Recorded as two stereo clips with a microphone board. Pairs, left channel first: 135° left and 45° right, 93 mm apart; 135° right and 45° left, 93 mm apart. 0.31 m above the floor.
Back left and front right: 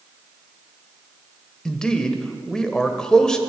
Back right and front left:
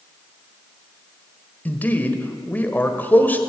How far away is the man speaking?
About 1.2 m.